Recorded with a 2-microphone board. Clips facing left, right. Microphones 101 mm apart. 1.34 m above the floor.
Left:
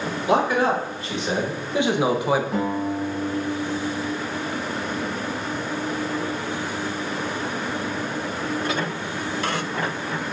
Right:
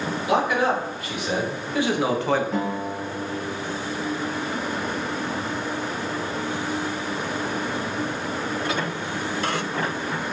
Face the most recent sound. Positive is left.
turn(degrees=10)  # may be behind; listen again after turning